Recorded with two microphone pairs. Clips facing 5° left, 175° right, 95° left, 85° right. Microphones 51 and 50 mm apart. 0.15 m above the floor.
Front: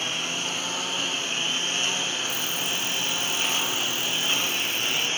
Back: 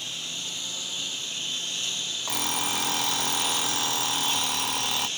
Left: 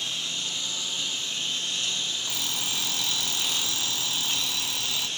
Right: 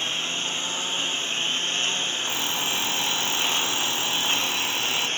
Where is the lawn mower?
35° right.